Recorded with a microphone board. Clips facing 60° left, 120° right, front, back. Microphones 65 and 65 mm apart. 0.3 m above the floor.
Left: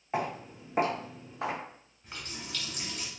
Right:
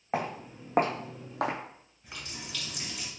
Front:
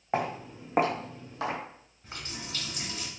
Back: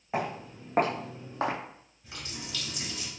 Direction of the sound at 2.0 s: 35° right.